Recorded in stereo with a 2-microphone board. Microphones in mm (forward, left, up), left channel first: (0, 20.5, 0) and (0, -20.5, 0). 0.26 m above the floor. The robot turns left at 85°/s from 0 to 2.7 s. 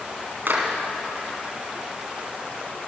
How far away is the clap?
About 2 m.